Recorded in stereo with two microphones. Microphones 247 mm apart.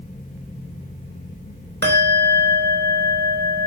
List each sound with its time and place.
1.8 s a bell: 50° right (ahead or behind), 4 m